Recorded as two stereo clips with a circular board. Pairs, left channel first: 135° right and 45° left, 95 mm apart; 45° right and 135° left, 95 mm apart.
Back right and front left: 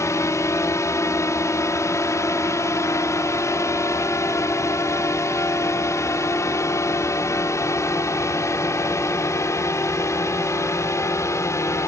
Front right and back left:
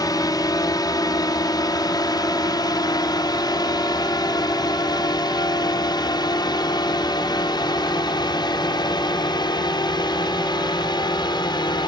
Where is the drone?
80° right.